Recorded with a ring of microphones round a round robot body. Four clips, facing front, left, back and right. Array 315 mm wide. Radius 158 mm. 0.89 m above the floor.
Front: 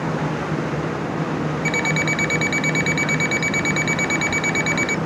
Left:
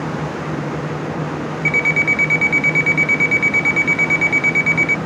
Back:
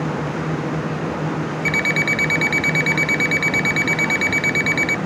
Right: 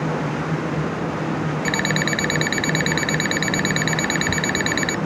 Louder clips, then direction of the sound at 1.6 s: Left 4 dB, even; 90° right.